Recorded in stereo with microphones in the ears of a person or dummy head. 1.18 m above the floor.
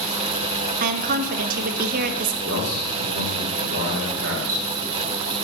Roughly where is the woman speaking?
Right.